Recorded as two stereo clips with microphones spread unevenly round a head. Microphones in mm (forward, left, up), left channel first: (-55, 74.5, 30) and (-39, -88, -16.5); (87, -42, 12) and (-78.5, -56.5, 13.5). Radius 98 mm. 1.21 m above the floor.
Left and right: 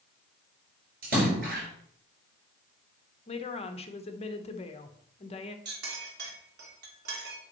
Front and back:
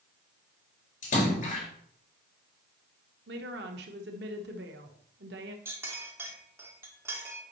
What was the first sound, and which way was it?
A splash, 35° right.